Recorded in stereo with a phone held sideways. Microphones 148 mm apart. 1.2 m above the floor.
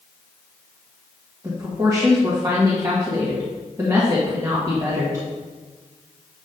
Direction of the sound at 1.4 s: 20° right (ahead or behind).